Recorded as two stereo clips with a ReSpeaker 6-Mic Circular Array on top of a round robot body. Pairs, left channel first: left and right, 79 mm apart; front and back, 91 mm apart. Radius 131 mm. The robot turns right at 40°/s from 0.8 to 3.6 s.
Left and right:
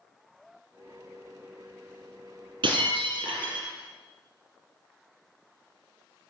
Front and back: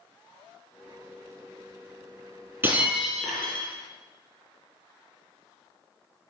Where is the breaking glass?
115° right, 3.5 m; by 3.7 s 75° right, 3.5 m.